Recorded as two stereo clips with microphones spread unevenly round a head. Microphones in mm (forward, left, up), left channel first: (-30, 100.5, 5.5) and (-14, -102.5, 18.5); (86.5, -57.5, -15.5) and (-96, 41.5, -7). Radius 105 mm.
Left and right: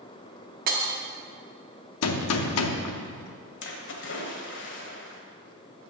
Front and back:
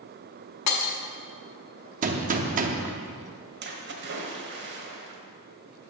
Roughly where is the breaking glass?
Ahead right.